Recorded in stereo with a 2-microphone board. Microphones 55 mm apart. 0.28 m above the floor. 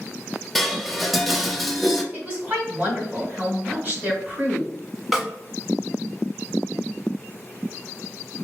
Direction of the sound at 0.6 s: Centre (ahead or behind).